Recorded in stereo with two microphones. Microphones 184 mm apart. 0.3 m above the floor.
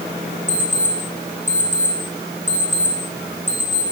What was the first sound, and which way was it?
An alarm clock, 45° right (ahead or behind).